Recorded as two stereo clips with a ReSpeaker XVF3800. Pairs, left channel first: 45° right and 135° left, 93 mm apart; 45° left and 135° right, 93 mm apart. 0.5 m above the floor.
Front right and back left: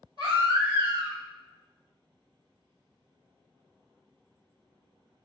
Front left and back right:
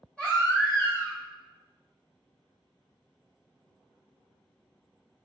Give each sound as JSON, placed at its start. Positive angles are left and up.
{"t": 0.2, "sound": "a baby crying", "azimuth_deg": 125, "distance_m": 1.8}